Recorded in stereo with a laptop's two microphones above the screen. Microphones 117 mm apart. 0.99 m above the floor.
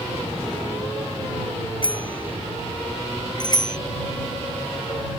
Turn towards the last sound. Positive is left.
turn(degrees=40)  # may be behind; listen again after turning